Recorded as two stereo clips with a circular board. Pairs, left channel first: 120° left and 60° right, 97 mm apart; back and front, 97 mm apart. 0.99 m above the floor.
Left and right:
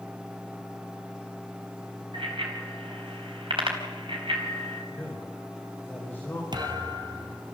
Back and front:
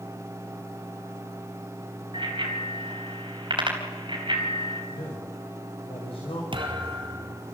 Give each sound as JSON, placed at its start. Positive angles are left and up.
{"t": 2.1, "sound": "a bicycle bell", "azimuth_deg": -35, "distance_m": 4.0}
{"t": 4.9, "sound": "a man speaking", "azimuth_deg": -170, "distance_m": 3.5}
{"t": 6.5, "sound": "a thud", "azimuth_deg": -25, "distance_m": 2.5}